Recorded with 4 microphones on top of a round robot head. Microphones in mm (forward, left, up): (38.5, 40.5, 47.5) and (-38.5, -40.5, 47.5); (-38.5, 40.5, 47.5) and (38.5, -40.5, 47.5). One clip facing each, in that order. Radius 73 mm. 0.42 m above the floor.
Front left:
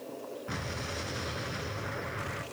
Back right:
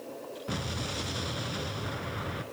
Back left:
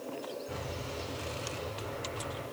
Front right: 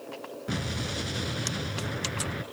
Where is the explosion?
60° right, 1.9 m.